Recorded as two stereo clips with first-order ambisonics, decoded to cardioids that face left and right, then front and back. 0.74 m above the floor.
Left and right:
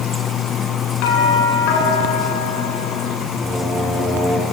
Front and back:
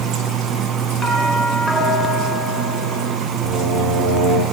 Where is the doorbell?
95° left, 9 m.